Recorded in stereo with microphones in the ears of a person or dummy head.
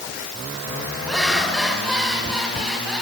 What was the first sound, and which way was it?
Laughter, 5° left (ahead or behind).